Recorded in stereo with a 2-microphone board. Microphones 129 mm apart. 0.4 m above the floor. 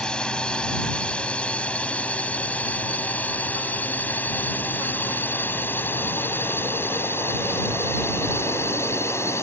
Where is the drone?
5° left (ahead or behind); by 9.4 s 20° left (ahead or behind).